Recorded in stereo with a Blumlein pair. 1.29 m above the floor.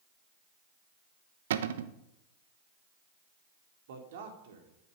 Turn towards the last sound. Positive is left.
turn(degrees=-55)